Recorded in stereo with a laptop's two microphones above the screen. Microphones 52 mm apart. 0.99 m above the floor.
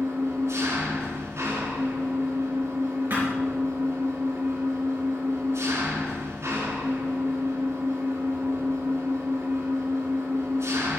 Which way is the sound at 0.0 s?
65° right (ahead or behind).